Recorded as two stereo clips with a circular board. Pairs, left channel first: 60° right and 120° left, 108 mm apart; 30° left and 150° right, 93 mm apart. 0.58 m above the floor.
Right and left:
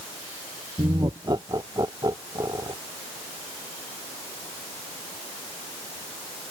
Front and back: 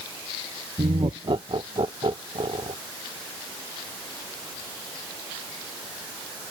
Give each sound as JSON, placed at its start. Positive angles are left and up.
{"t": 0.8, "sound": "laughter", "azimuth_deg": 175}